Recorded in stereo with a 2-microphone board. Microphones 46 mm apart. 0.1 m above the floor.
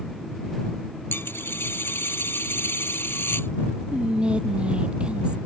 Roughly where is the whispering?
Right.